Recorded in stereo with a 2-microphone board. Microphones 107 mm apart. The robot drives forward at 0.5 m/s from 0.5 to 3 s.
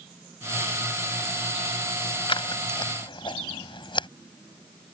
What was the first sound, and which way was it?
Scissors, 55° left (ahead or behind).